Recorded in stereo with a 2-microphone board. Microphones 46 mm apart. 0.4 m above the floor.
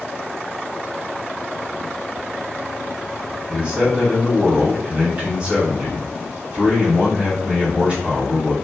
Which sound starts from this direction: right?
A man speaking, at 3.5 s.